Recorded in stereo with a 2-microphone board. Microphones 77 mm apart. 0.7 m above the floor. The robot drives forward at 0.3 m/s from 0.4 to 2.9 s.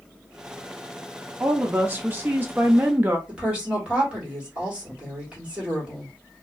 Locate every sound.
1.4 s a woman speaking: 20° right (ahead or behind), 0.5 m
3.3 s a woman speaking: 15° right (ahead or behind), 1.6 m